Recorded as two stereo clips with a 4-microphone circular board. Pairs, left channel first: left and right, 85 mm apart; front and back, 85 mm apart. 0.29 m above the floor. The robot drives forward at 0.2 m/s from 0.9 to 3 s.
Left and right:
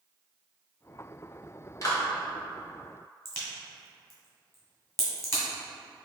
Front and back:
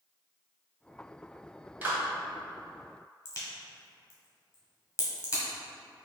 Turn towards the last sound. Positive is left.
turn(degrees=40)